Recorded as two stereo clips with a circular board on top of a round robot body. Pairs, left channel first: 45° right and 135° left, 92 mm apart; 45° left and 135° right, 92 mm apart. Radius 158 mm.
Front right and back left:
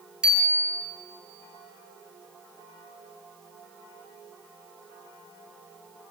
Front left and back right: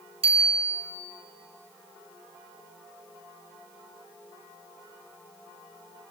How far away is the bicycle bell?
About 5 m.